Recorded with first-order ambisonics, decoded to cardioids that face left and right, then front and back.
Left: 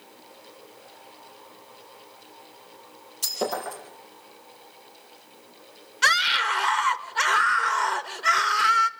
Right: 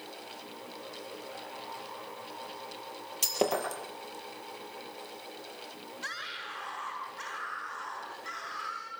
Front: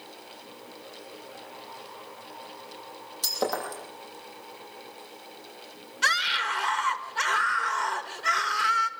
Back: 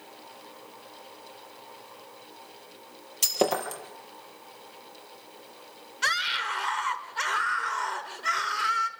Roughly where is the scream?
Left.